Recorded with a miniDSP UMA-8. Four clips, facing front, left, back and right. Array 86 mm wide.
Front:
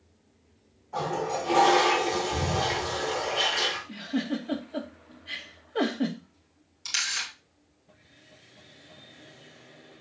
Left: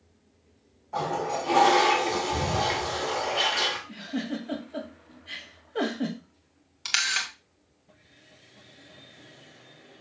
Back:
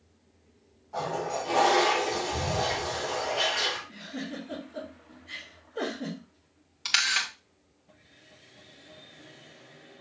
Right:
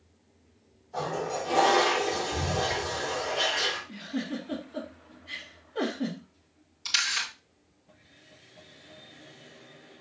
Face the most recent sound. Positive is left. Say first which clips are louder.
# left 2 dB, back 6 dB
turn(degrees=135)